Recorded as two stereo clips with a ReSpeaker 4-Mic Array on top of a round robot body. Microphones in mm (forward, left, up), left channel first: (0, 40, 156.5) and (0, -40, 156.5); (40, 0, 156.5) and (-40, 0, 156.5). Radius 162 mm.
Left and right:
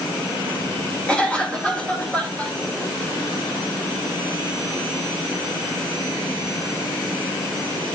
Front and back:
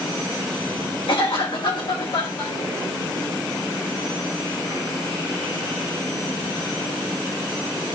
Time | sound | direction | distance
1.1 | a cough | 15° left | 3.5 m